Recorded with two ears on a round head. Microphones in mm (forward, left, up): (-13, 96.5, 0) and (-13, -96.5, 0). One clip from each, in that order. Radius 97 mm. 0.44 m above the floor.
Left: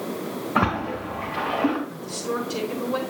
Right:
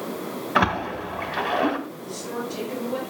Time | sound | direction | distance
0.6 | a splash | 70° right (ahead or behind) | 2 m
1.9 | a woman speaking | 30° left (ahead or behind) | 5.5 m